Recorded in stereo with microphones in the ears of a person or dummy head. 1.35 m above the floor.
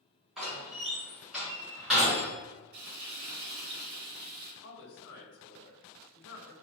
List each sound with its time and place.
0.4 s a door slam: centre (ahead or behind), 1.5 m
2.7 s frying: 45° right (ahead or behind), 0.8 m
4.6 s a woman speaking: 65° left (ahead or behind), 1.2 m